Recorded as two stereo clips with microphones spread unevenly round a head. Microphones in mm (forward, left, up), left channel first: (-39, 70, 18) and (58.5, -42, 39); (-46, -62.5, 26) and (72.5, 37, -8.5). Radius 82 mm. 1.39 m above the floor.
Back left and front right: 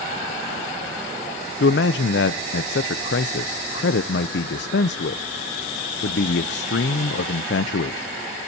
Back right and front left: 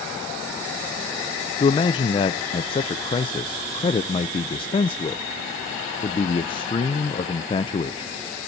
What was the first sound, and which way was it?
A man speaking, 155° left.